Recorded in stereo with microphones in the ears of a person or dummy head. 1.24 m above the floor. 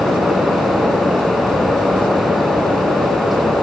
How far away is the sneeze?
I don't hear a sneeze.